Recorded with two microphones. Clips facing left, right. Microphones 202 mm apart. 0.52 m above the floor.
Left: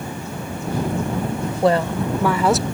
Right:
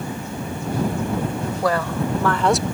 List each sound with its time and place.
1.6 s a woman speaking: 25° left (ahead or behind); by 2.6 s centre (ahead or behind)